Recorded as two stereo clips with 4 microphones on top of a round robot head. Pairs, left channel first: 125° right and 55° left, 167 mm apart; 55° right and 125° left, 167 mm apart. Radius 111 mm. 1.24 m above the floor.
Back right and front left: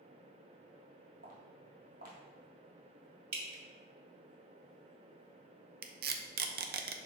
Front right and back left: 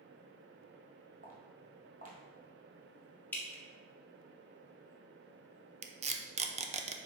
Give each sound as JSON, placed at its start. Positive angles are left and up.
{"t": 1.2, "sound": "footsteps", "azimuth_deg": 90, "distance_m": 1.8}
{"t": 3.3, "sound": "dripping", "azimuth_deg": 25, "distance_m": 1.1}
{"t": 5.8, "sound": "tape being pulled", "azimuth_deg": 75, "distance_m": 0.7}